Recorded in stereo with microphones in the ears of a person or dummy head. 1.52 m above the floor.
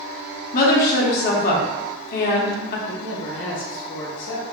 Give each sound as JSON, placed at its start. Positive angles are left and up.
{"t": 0.5, "sound": "a woman speaking", "side_deg": 50, "distance_m": 0.8}
{"t": 2.9, "sound": "a man speaking", "side_deg": 45, "distance_m": 0.6}